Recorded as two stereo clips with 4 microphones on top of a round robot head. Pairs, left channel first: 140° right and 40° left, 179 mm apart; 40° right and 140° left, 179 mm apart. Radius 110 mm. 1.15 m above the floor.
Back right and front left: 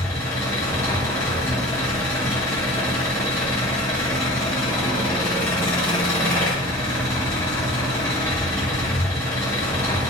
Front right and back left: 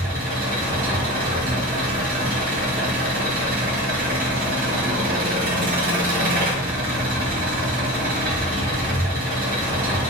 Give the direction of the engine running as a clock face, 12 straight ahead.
7 o'clock.